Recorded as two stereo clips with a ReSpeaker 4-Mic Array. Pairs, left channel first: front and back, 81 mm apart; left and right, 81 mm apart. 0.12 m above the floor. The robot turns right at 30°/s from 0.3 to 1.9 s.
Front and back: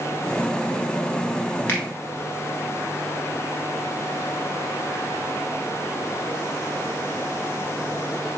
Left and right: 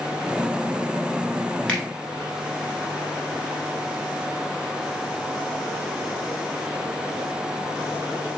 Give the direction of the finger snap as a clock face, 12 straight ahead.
11 o'clock.